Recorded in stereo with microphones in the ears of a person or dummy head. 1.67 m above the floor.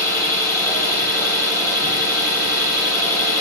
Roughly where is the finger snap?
No finger snap in this recording.